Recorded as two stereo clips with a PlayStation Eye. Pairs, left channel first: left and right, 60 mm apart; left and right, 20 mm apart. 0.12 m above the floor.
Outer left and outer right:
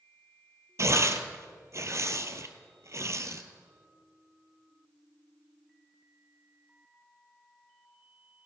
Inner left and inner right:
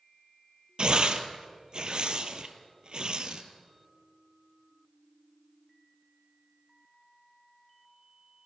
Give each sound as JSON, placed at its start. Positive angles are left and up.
{"t": 0.8, "sound": "tearing paper", "side_deg": -50, "distance_m": 0.9}